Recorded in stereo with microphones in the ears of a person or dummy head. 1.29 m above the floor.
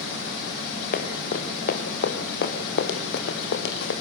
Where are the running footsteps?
50° left (ahead or behind), 4 m; by 3.9 s 65° left (ahead or behind), 3.5 m.